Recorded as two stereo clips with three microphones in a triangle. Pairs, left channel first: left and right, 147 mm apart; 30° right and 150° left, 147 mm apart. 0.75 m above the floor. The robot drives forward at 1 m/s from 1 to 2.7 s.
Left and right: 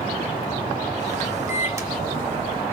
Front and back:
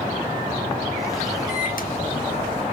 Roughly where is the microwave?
Ahead.